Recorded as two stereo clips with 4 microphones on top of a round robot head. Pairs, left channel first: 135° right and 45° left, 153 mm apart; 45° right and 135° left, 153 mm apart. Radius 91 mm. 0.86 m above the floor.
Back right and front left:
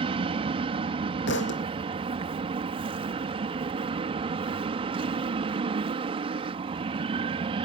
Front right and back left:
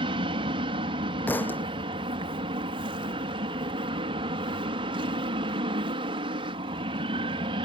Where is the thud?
125° right.